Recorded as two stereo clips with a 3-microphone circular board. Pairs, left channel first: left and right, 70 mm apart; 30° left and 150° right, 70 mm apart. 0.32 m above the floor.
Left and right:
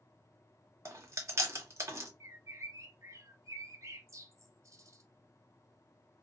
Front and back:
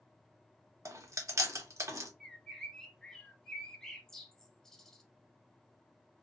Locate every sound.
0.8 s chewing: 125° right, 0.8 m
2.2 s a bird: 50° right, 0.6 m